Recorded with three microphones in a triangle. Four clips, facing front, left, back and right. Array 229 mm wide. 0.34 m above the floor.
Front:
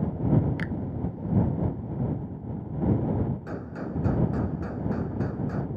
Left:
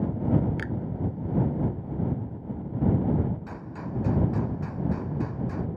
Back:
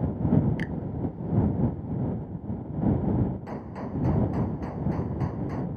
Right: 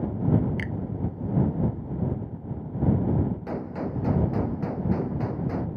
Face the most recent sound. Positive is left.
turn(degrees=-80)